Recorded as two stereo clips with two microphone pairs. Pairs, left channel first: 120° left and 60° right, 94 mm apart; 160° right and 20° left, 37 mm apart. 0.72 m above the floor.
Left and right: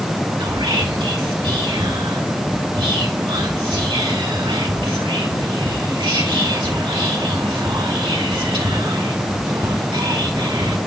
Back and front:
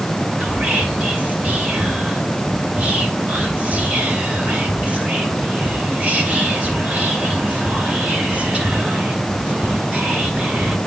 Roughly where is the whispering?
Ahead right.